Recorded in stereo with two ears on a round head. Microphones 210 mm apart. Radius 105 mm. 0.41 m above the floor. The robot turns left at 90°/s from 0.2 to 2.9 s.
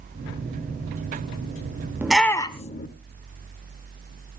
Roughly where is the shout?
Centre.